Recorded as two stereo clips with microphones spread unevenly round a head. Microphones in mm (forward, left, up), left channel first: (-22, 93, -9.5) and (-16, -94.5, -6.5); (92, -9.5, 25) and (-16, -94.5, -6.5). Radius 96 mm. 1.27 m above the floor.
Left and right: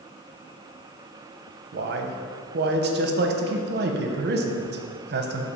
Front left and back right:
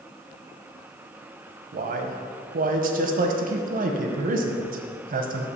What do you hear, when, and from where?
1.7 s a man speaking: 125° right, 0.7 m